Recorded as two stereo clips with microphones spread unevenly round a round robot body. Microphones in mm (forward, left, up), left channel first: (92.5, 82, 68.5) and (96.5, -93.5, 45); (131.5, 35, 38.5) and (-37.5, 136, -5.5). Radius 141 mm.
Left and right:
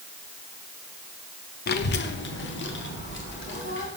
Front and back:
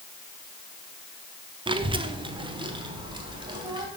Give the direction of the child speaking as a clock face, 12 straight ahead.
9 o'clock.